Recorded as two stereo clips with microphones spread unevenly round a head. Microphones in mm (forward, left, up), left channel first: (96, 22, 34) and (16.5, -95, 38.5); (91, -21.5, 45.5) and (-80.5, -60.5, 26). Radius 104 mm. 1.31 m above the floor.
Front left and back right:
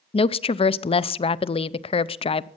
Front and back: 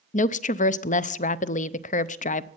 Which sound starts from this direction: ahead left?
A woman speaking, at 0.1 s.